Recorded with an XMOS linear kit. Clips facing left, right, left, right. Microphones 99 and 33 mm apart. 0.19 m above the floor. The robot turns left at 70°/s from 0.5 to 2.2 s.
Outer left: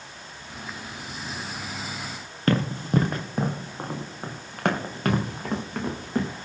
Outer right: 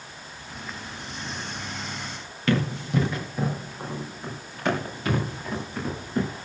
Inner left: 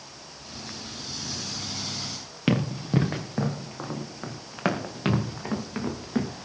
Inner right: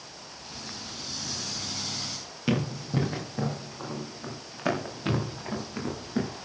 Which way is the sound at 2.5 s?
40° left (ahead or behind).